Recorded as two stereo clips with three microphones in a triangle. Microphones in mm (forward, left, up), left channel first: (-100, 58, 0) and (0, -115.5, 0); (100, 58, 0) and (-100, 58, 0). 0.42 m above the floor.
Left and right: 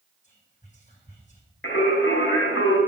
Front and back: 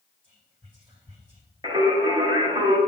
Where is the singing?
110° left, 1.7 m.